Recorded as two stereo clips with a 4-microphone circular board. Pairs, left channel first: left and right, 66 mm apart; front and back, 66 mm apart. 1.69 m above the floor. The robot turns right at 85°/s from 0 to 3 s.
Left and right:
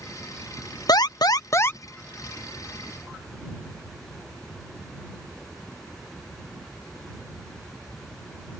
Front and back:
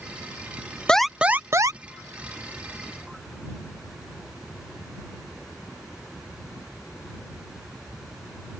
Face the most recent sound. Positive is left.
turn(degrees=-105)